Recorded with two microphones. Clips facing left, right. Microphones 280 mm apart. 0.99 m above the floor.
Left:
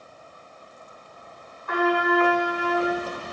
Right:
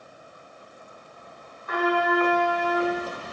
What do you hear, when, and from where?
1.7 s a trumpet: 55° left (ahead or behind), 2.0 m